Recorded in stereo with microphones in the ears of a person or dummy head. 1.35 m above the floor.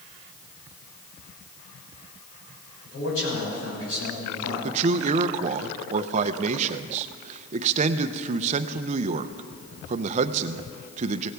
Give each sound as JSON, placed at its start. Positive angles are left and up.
{"t": 2.8, "sound": "a man speaking", "side_deg": 85, "distance_m": 6.5}
{"t": 4.6, "sound": "a man speaking", "side_deg": -45, "distance_m": 0.6}